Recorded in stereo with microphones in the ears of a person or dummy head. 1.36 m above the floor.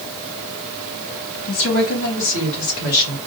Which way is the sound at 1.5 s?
75° left (ahead or behind).